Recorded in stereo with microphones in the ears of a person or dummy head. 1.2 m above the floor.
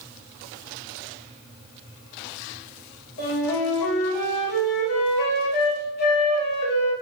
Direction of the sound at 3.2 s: 60° left (ahead or behind).